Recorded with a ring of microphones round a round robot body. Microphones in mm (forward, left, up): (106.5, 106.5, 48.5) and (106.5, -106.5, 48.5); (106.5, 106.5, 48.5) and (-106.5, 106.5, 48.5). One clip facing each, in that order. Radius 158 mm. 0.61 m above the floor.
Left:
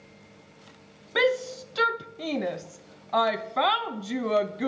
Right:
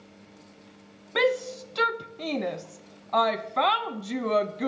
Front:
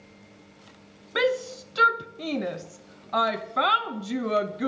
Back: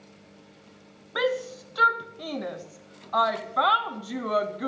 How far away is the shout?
About 0.6 m.